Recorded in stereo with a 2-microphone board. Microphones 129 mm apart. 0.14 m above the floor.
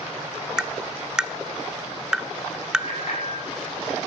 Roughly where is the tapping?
Centre.